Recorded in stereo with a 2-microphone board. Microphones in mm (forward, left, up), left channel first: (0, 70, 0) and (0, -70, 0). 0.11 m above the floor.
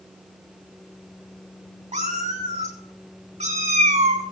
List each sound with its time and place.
1.9 s a cat meowing: 55° right (ahead or behind), 2.5 m